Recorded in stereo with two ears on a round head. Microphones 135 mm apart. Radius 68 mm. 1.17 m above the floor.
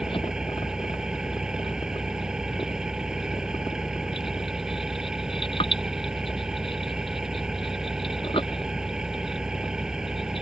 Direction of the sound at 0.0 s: 5° right (ahead or behind).